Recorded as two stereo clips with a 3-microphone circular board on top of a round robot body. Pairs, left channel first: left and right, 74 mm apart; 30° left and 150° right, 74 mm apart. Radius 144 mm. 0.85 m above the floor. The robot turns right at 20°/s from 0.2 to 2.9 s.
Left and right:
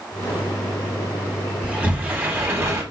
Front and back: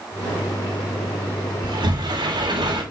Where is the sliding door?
165° right, 4.5 m; by 2.8 s 140° right, 4.5 m.